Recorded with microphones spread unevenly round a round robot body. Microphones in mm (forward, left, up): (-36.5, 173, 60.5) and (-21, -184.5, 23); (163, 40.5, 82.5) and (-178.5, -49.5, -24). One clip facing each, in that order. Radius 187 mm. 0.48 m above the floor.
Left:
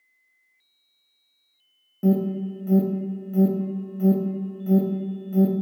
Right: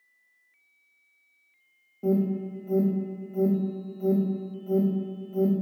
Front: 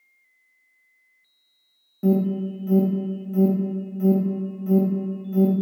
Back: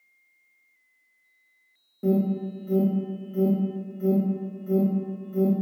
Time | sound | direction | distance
2.0 | an alarm | 100° left | 0.6 m